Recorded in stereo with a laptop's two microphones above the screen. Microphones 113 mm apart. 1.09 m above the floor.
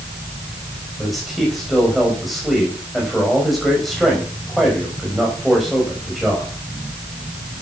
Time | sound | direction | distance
1.0 | a man speaking | centre (ahead or behind) | 5 m